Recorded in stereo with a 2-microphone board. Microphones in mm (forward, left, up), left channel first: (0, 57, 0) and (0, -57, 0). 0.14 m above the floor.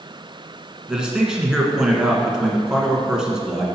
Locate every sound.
0.9 s a man speaking: 5° right (ahead or behind), 1.3 m